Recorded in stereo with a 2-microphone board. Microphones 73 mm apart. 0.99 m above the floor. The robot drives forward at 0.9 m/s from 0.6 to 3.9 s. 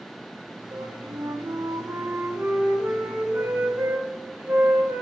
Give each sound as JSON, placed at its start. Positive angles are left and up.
{"t": 0.7, "sound": "a flute", "side_deg": -55, "distance_m": 1.1}